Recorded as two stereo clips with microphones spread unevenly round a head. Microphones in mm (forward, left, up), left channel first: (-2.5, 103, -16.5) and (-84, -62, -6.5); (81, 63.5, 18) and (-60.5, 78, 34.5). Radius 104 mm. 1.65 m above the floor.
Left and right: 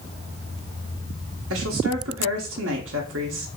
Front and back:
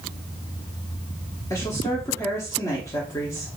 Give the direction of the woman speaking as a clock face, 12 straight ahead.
3 o'clock.